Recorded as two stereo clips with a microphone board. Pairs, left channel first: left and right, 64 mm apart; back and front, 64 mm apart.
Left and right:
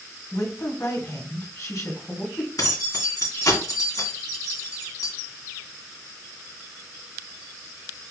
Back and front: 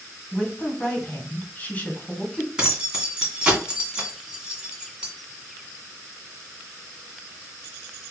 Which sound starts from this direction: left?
Keys jangling, at 2.6 s.